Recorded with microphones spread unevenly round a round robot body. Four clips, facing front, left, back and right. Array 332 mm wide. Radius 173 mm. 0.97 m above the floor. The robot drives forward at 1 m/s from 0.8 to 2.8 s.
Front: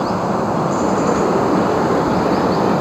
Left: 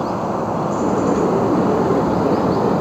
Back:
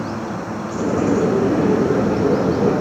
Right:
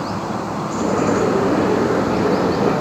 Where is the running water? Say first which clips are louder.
Left 3 dB, front 8 dB; 10° left.